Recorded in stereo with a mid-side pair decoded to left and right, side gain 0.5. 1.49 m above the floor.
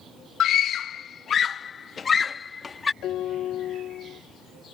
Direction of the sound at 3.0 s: 65° left.